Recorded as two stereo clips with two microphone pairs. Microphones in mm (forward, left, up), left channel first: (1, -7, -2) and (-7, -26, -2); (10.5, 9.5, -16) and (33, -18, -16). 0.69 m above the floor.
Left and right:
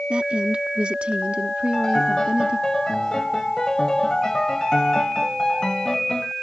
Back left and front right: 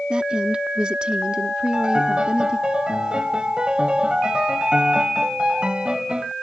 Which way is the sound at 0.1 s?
110° right.